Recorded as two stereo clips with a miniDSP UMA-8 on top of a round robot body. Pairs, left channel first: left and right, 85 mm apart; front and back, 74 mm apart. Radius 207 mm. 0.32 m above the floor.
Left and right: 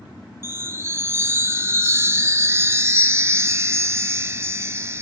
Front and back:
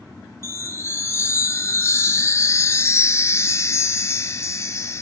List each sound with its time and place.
0.4 s a chime: 40° right, 0.9 m